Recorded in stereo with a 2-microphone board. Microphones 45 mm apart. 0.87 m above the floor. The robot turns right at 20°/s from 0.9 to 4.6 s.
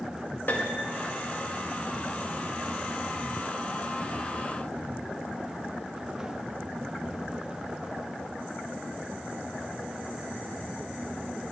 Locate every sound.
0.5 s a piano: 45° left (ahead or behind), 1.5 m